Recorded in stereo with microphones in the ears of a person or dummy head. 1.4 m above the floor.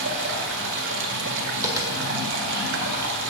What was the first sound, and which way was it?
Running water, 65° right (ahead or behind).